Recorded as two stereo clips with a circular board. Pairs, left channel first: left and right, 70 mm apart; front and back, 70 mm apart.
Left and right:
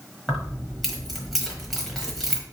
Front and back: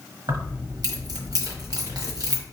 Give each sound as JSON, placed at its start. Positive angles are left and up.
{"t": 0.3, "sound": "keys jangling", "azimuth_deg": 180, "distance_m": 1.2}